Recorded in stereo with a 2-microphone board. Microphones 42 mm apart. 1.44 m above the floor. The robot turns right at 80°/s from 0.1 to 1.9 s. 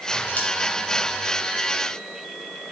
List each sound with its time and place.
0.4 s scissors: 40° left (ahead or behind), 2.5 m; by 0.5 s 50° left (ahead or behind), 2.5 m